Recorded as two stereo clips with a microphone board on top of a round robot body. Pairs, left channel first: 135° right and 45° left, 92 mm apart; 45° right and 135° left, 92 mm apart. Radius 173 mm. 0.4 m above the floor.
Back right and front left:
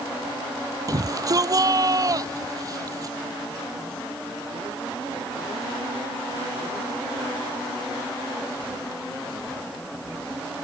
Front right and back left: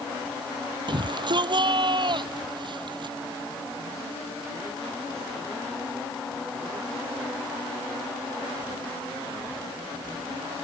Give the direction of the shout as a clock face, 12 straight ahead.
9 o'clock.